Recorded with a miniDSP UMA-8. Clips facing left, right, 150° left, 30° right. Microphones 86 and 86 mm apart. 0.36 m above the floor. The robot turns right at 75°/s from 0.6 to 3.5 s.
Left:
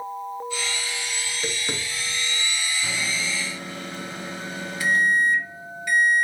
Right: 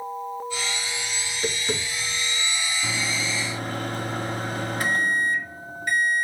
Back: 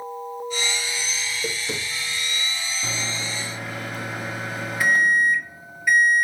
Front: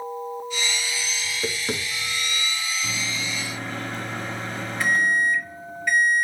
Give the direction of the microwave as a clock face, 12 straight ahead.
6 o'clock.